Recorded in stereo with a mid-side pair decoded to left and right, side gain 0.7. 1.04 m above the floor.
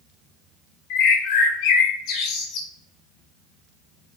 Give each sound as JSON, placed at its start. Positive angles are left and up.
{"t": 0.9, "sound": "a bird", "azimuth_deg": 65, "distance_m": 1.8}